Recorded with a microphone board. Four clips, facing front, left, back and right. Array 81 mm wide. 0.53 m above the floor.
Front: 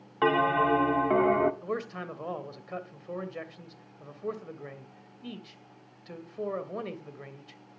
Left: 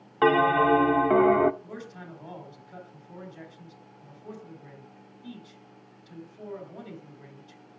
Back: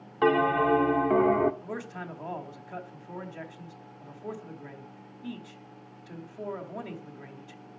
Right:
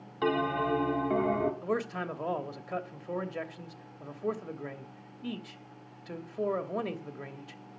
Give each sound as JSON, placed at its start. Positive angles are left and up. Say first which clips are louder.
{"t": 0.2, "sound": "a bell", "louder": "left 8 dB, back 1 dB", "azimuth_deg": 75, "distance_m": 0.8}
{"t": 1.6, "sound": "a man speaking", "louder": "right 10 dB, front 3 dB", "azimuth_deg": -65, "distance_m": 2.0}